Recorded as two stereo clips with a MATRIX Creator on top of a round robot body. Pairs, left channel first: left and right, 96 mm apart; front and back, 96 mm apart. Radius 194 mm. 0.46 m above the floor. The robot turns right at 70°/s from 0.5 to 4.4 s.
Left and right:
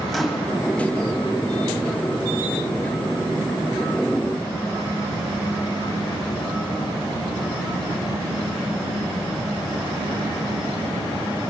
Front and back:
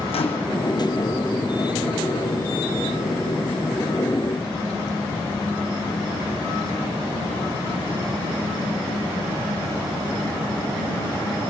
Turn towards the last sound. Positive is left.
turn(degrees=-85)